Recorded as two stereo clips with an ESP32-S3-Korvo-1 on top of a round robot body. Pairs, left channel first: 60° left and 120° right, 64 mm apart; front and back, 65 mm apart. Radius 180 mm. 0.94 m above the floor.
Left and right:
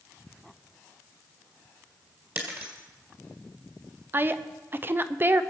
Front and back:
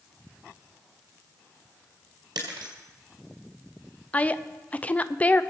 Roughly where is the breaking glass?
Behind.